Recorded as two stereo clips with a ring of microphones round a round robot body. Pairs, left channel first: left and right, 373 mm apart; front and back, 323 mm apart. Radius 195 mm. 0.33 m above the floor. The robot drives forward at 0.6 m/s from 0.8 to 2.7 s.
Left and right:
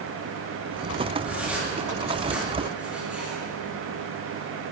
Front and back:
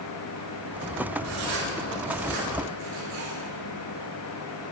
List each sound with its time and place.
1.2 s writing: 175° right, 3.5 m